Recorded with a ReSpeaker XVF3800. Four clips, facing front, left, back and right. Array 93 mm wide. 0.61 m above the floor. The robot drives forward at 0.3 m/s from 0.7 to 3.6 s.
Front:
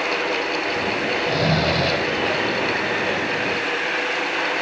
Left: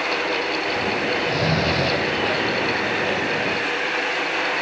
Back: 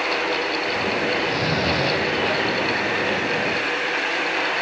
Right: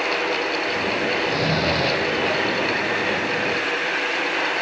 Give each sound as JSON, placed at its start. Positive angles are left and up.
{"t": 1.2, "sound": "snoring", "azimuth_deg": 10, "distance_m": 2.0}